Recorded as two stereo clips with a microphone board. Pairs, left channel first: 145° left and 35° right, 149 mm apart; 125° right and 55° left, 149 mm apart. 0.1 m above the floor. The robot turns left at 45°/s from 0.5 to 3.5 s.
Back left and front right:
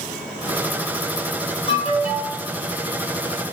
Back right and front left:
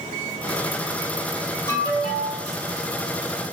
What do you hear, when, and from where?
1.7 s an alarm: 170° left, 2.0 m; by 2.4 s 140° left, 2.0 m